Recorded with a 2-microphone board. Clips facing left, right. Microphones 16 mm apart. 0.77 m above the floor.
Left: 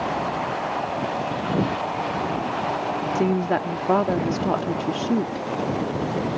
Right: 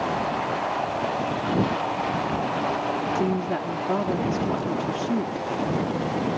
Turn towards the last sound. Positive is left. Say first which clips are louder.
# left 3 dB
turn(degrees=50)  # may be behind; listen again after turning